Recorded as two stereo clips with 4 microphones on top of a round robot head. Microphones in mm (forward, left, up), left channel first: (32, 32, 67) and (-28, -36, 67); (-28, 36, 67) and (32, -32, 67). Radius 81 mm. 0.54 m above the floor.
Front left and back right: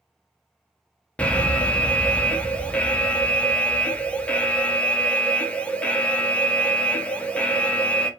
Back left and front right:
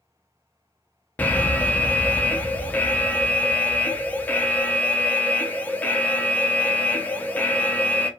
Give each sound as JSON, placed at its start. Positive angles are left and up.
{"t": 1.2, "sound": "an alarm", "azimuth_deg": 100, "distance_m": 0.6}